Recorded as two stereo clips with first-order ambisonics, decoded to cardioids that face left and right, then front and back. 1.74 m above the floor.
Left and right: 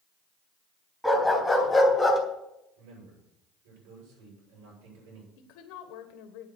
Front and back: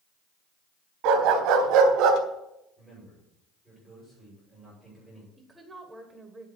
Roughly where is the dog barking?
Behind.